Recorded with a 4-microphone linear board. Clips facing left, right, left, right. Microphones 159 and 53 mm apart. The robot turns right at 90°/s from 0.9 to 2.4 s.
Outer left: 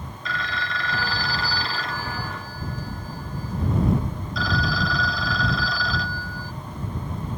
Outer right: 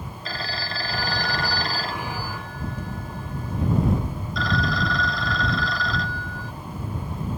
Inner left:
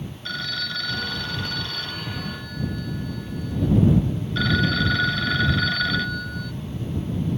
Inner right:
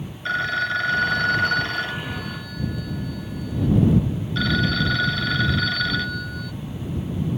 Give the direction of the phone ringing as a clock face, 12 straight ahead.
4 o'clock.